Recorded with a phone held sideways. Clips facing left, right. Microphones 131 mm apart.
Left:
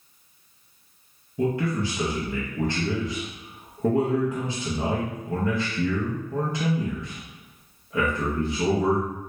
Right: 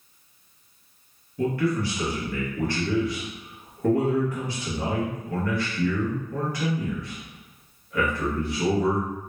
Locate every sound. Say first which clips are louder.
1.4 s a man speaking: even; 25° left (ahead or behind), 0.8 m